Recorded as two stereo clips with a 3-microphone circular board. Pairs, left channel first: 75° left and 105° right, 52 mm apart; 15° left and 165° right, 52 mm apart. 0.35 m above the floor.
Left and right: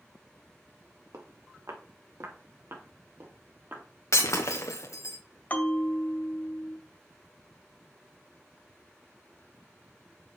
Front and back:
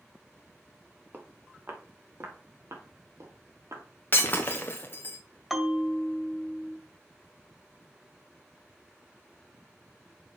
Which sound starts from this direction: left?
A bell, at 5.5 s.